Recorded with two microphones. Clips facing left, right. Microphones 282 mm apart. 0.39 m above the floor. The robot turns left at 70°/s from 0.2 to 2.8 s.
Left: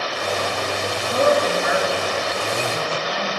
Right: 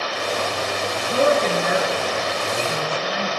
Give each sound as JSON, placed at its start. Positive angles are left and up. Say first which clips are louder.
{"t": 1.1, "sound": "a woman speaking", "louder": "even", "side_deg": -5, "distance_m": 6.0}